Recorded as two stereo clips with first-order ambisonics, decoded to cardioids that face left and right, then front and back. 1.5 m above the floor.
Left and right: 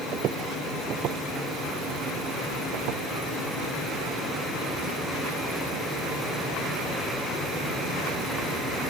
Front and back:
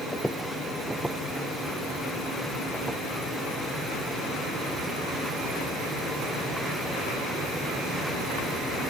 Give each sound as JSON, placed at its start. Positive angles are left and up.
{"t": 0.1, "sound": "footsteps", "azimuth_deg": -85}